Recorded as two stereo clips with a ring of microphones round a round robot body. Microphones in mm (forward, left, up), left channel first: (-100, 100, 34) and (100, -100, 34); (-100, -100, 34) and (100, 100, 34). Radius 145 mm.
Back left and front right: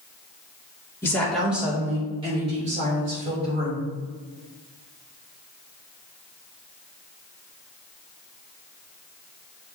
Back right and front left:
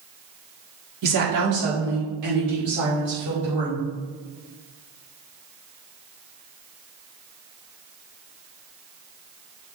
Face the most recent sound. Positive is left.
turn(degrees=10)